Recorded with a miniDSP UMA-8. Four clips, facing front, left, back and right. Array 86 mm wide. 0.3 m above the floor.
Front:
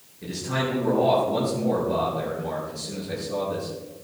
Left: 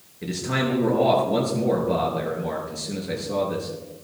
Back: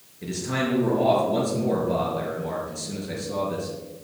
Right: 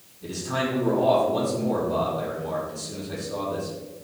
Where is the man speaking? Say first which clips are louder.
Left 2 dB, back 1 dB; 105° left, 5.5 m.